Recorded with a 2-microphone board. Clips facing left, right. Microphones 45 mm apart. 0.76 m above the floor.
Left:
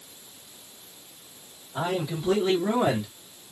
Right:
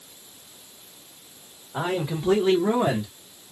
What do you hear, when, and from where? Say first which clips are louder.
1.7 s a man speaking: right 2 dB; 55° right (ahead or behind), 1.4 m; by 3.1 s 25° left (ahead or behind), 1.1 m